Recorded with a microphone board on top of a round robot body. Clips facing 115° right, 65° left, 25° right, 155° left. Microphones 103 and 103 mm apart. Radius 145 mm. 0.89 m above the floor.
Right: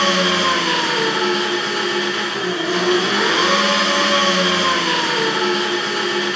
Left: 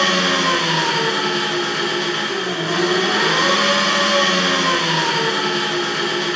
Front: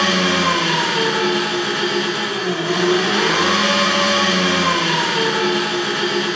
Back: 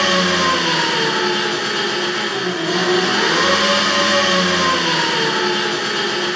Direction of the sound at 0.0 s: 15° left.